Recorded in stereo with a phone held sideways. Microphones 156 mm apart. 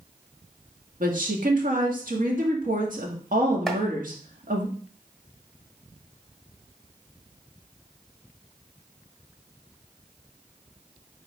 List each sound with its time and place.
1.0 s a woman speaking: 70° right (ahead or behind), 1.8 m
3.7 s chopping: centre (ahead or behind), 1.5 m